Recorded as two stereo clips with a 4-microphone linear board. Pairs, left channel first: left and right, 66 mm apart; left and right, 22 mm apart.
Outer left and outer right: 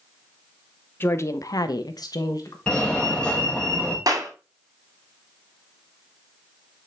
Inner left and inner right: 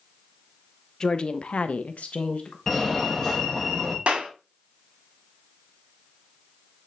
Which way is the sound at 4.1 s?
60° right (ahead or behind).